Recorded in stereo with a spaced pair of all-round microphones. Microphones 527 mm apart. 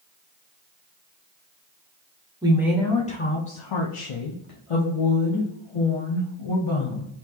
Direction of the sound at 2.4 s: 10° right (ahead or behind).